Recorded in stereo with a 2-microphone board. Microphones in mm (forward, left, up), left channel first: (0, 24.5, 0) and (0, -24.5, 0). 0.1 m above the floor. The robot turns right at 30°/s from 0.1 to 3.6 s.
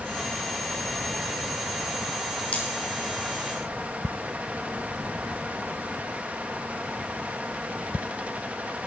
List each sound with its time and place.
2.5 s cutlery clinking: 30° left (ahead or behind), 2.5 m; by 2.6 s 35° left (ahead or behind), 2.5 m